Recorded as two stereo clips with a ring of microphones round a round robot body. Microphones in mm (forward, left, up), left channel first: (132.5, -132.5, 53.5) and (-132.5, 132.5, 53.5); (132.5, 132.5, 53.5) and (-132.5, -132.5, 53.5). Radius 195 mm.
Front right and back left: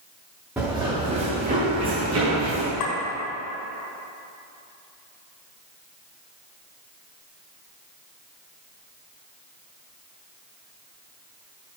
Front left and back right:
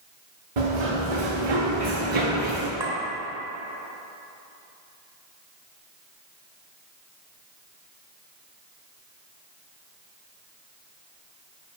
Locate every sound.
0.6 s running footsteps: 140° right, 1.8 m; by 2.7 s 175° right, 2.0 m
2.8 s a clink: 55° right, 1.2 m